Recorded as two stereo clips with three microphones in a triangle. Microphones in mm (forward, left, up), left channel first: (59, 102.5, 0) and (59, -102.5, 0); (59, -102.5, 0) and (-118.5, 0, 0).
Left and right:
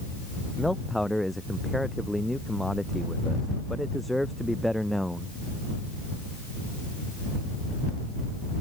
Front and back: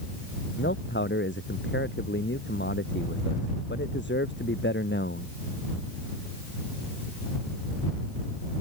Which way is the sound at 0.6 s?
Straight ahead.